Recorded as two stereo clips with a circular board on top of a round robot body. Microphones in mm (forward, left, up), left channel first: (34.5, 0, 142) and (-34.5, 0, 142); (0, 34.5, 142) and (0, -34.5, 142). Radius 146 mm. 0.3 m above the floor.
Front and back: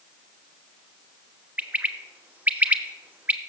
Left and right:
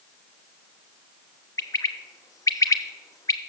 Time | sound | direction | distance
1.6 | a bird | 115° left | 1.0 m